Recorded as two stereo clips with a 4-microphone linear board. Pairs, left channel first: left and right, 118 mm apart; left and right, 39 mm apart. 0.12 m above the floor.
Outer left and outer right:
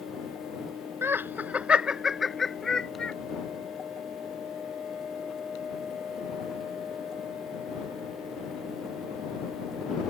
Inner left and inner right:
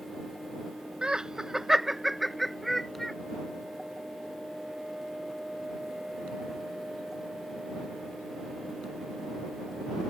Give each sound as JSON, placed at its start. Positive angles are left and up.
{"t": 1.0, "sound": "laughter", "side_deg": -20}